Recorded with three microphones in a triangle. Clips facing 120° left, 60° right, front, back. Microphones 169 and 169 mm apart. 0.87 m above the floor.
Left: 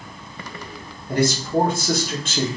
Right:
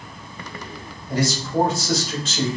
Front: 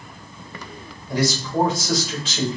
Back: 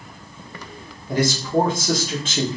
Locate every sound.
1.1 s a man speaking: 145° left, 1.8 m